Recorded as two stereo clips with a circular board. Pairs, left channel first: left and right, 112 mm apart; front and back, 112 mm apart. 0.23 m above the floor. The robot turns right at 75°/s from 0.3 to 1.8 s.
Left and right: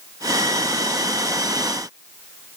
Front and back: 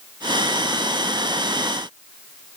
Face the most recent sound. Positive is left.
No sound to turn to.